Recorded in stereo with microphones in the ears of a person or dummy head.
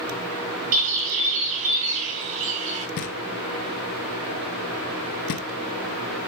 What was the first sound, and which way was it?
A bird, 40° right (ahead or behind).